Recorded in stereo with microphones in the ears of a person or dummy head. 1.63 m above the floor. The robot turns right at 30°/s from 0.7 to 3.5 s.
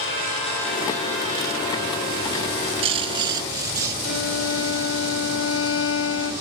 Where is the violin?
85° left, 3 m.